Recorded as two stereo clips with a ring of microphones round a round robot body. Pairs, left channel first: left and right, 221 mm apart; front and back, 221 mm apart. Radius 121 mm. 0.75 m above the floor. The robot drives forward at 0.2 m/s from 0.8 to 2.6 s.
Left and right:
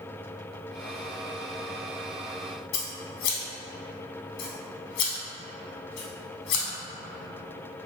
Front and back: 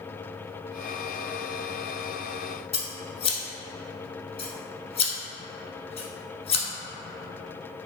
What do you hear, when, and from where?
2.7 s scissors: 65° left, 0.7 m